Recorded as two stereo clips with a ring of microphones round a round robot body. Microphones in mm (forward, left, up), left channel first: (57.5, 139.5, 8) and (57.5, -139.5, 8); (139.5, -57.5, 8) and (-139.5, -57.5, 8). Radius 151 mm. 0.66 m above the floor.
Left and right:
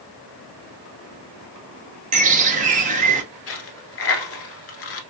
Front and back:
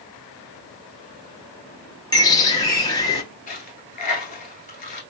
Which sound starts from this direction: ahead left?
A dropped coin, at 3.5 s.